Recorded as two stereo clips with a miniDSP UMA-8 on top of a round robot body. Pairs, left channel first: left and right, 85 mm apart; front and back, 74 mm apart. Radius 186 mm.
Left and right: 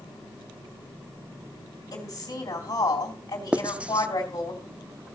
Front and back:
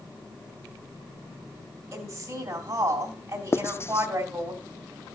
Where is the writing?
20° right, 0.8 m.